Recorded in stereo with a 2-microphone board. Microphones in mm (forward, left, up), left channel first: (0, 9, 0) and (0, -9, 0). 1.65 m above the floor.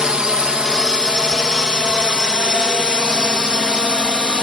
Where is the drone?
45° right (ahead or behind); by 4.4 s 50° right (ahead or behind).